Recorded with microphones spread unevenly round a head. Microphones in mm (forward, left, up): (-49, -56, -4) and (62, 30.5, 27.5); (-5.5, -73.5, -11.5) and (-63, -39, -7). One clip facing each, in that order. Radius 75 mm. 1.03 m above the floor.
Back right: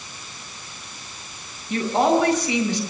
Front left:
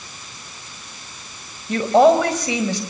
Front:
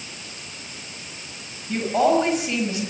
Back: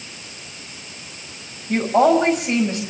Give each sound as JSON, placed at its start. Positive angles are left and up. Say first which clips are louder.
{"t": 1.7, "sound": "a woman speaking", "louder": "front left 6 dB, back 4 dB", "azimuth_deg": 75, "distance_m": 5.0}